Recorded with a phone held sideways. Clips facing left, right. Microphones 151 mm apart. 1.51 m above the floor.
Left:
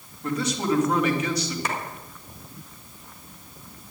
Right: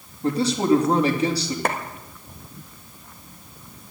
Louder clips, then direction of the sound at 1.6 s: Right 8 dB; 55° right (ahead or behind).